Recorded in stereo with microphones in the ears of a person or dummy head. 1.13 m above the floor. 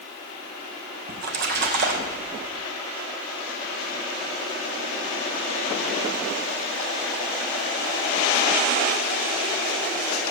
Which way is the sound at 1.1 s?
60° right (ahead or behind).